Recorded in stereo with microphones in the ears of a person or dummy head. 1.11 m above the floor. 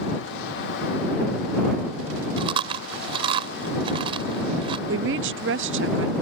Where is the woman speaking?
65° right (ahead or behind).